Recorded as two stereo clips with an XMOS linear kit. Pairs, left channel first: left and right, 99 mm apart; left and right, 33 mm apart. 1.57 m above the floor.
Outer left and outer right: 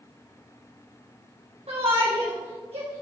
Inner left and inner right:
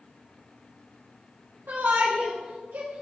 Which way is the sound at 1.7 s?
85° right.